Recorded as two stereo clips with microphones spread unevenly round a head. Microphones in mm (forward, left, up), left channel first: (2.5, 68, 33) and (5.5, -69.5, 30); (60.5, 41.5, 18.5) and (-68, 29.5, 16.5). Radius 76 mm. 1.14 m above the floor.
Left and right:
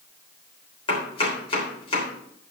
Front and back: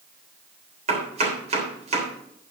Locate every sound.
0.9 s chopping: 145° left, 3.5 m